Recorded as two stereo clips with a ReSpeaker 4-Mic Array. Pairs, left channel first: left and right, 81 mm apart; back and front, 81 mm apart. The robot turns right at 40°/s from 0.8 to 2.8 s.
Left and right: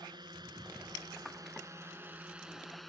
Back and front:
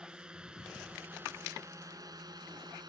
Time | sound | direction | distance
0.0 | a drone | 80° right | ?